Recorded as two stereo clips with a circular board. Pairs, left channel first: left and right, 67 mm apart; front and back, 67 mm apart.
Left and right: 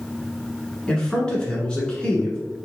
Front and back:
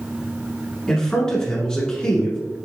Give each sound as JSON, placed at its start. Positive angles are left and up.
{"t": 0.9, "sound": "a man speaking", "azimuth_deg": 50, "distance_m": 1.3}